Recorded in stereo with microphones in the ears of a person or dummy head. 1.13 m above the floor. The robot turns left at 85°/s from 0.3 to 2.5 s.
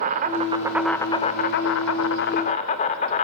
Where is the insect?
135° right, 2 m; by 3.2 s 40° left, 2 m.